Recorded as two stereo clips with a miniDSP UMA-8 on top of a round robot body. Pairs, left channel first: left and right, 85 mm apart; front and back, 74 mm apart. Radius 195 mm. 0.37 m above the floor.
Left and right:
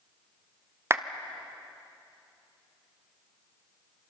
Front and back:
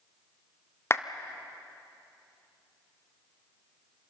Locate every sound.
0.9 s a clap: 40° right, 1.3 m